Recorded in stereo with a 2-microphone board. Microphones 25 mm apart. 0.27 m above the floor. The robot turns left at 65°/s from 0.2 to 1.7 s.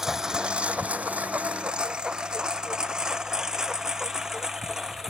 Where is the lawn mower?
20° right (ahead or behind); by 5.1 s 15° right (ahead or behind).